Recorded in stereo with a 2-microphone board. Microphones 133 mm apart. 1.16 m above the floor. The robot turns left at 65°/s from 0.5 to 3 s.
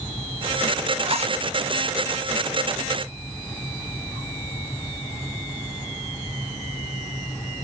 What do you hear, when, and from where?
1.0 s a zipper: 40° right (ahead or behind), 0.9 m; by 1.4 s 55° right (ahead or behind), 0.9 m